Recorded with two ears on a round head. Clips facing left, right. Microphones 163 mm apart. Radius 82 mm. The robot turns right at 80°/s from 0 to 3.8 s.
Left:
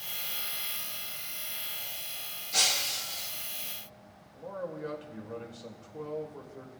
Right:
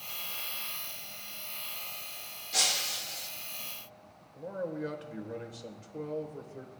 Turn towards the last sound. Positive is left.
turn(degrees=-20)  # may be behind; listen again after turning